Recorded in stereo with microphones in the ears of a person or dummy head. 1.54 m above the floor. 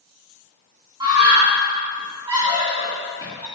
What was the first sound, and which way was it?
A scream, 25° right (ahead or behind).